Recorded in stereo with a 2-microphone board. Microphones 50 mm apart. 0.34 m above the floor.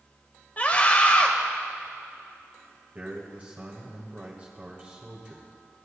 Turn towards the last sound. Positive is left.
turn(degrees=-35)  # may be behind; listen again after turning